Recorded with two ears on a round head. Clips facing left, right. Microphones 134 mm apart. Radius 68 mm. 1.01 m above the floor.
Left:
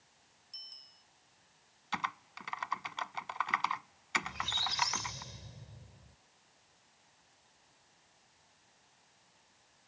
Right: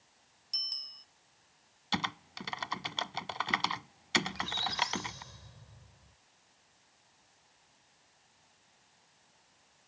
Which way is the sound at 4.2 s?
25° left (ahead or behind).